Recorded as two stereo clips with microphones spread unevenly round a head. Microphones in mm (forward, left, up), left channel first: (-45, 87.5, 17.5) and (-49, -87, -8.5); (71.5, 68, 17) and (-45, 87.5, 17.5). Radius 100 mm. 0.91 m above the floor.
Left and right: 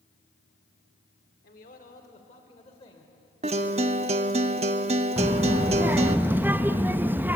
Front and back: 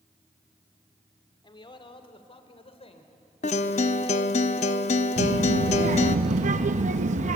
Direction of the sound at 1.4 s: 40° left.